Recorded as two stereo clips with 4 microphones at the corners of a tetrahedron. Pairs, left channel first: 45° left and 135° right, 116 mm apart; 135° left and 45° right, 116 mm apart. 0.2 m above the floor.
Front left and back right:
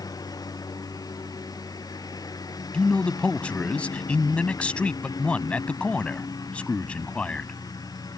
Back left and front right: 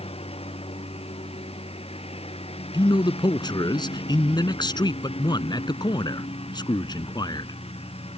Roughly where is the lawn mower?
Left.